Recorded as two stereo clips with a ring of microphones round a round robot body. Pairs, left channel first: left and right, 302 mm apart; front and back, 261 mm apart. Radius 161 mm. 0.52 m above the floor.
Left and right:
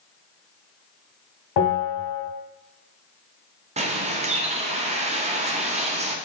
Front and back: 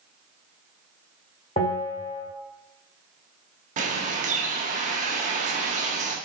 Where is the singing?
No singing in this recording.